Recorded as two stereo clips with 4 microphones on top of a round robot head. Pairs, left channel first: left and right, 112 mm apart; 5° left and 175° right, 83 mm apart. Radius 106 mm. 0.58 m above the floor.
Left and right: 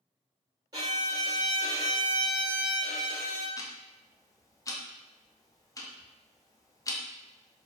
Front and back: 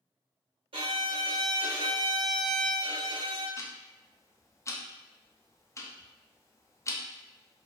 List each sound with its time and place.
0.7 s a violin: 150° right, 0.7 m
3.6 s ticking: 45° left, 0.6 m